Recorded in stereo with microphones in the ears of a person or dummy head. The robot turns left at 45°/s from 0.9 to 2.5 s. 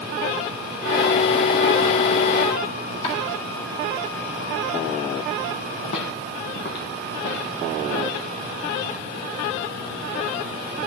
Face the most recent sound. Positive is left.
turn(degrees=50)  # may be behind; listen again after turning